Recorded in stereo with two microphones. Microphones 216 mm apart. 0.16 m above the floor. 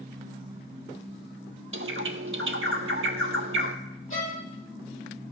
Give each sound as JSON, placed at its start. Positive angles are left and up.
{"t": 1.7, "sound": "a bird", "side_deg": -75, "distance_m": 0.8}
{"t": 4.1, "sound": "a violin", "side_deg": 75, "distance_m": 3.5}